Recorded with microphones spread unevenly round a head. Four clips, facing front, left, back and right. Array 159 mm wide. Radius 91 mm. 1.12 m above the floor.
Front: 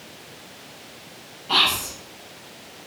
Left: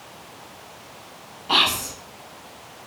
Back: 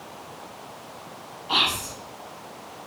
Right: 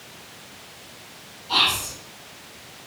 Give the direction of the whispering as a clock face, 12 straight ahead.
9 o'clock.